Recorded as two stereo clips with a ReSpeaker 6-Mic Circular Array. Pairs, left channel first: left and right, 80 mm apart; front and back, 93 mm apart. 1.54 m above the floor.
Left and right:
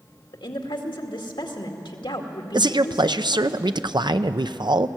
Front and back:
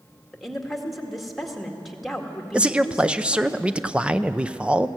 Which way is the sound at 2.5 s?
100° right.